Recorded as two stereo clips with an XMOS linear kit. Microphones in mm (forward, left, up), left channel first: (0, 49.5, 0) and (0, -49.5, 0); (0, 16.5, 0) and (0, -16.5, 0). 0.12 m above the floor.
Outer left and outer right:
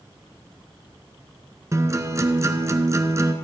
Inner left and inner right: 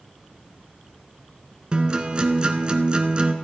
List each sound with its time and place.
1.7 s a guitar: 30° right (ahead or behind), 1.2 m